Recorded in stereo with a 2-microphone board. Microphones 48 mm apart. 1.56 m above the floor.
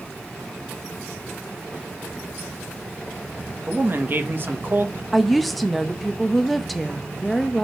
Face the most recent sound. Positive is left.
turn(degrees=0)  # may be behind; listen again after turning